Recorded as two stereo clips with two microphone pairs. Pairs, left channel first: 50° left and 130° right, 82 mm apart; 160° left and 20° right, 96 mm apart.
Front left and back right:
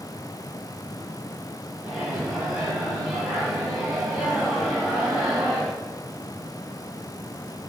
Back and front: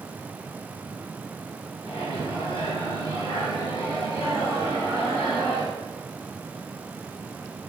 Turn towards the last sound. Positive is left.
turn(degrees=155)